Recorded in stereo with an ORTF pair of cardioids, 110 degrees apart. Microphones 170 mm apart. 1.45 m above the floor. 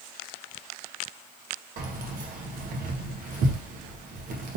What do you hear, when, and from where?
1.8 s keys jangling: 55° right, 1.0 m